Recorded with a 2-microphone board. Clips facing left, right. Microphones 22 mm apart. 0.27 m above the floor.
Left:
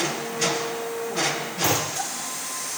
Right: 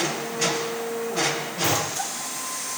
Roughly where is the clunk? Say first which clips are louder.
Left 1 dB; left.